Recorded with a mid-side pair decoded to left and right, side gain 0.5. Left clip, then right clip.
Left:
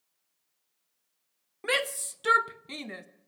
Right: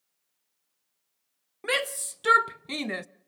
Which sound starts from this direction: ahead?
A shout, at 1.6 s.